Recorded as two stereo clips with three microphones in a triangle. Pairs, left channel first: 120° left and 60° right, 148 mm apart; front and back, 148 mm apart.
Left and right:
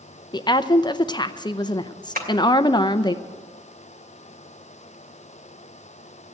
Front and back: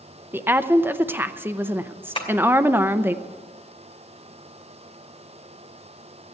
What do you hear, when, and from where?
0.3 s a woman speaking: 120° left, 0.6 m
2.1 s tapping: 55° right, 2.5 m